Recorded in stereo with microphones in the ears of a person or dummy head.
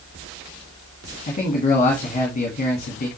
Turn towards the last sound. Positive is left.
turn(degrees=40)  # may be behind; listen again after turning